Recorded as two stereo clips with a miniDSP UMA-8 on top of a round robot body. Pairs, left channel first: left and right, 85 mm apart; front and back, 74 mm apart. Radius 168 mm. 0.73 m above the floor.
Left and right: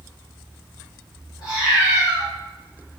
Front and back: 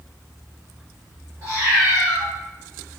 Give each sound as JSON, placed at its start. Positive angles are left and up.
{"t": 1.4, "sound": "a cat meowing", "azimuth_deg": 125, "distance_m": 1.5}